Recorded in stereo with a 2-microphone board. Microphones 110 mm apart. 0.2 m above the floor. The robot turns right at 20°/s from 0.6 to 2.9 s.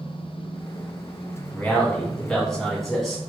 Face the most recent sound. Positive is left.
turn(degrees=0)  # may be behind; listen again after turning